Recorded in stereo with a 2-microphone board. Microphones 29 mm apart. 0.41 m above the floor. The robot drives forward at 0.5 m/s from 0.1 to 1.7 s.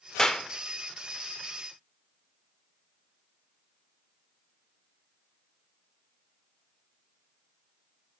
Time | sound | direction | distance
0.2 | a clap | 25° left (ahead or behind) | 0.6 m